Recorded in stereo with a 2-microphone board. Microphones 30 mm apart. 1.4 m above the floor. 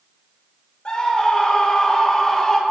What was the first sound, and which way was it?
A scream, 35° left (ahead or behind).